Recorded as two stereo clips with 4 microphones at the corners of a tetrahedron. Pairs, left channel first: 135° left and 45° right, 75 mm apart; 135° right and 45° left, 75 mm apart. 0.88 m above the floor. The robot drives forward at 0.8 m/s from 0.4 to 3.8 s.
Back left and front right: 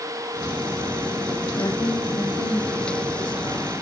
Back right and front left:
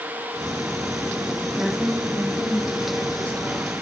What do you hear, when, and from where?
1.6 s a woman speaking: 130° left, 1.5 m; by 3.7 s 160° left, 3 m